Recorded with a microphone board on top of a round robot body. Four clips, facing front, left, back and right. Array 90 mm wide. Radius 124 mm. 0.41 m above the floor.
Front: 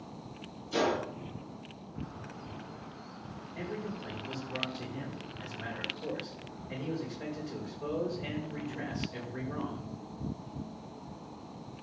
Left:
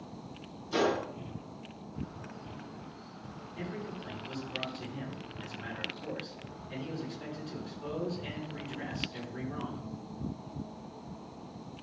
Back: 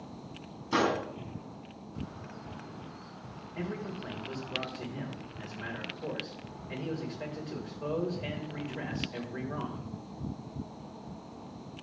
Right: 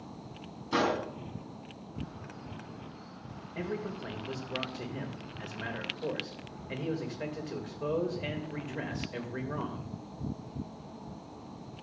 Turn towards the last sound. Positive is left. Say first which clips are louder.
# right 4 dB, back 1 dB
turn(degrees=-100)